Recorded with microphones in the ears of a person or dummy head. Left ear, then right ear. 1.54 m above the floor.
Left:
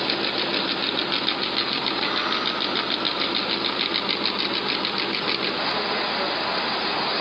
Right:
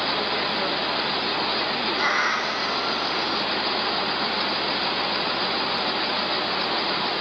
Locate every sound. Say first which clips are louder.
2.0 s a cat meowing: right 2 dB; 50° right (ahead or behind), 1.7 m